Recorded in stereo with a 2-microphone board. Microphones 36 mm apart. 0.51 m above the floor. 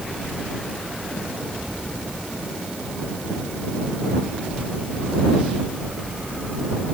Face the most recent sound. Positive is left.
No sound to turn to.